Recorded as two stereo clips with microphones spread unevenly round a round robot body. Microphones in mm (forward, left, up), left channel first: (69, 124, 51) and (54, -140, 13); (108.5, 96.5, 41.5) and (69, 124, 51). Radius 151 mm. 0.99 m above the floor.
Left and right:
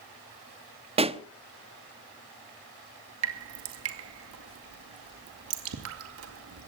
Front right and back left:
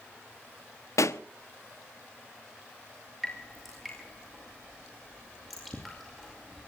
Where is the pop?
20° right, 0.9 m.